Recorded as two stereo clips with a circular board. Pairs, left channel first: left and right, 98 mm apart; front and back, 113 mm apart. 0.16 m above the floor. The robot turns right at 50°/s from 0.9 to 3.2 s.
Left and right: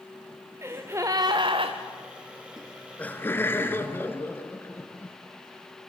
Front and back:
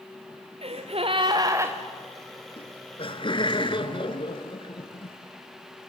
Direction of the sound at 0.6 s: 150° right.